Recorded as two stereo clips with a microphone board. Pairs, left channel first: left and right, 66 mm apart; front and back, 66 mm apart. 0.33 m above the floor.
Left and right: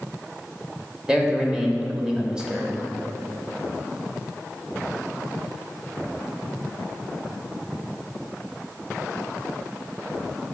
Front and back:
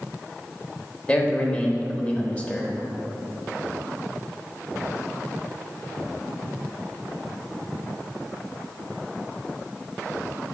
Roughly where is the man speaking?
Ahead right.